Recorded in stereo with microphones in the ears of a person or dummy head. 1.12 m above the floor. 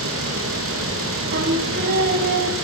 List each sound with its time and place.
0.0 s a fan: 60° right (ahead or behind), 2.5 m
1.3 s singing: 50° right (ahead or behind), 1.6 m